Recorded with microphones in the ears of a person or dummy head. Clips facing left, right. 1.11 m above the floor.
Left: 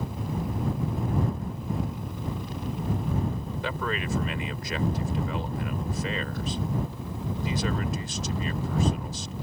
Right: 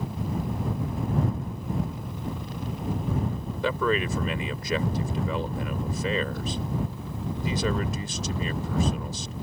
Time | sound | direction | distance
3.6 | a man speaking | 75° right (ahead or behind) | ?